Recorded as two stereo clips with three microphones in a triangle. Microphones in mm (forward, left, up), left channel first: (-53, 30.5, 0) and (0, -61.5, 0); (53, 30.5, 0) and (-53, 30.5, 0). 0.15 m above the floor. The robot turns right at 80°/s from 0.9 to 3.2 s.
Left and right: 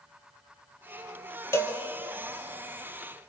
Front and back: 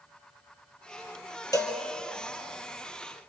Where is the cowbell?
55° left, 2.5 m; by 1.8 s 75° left, 2.5 m.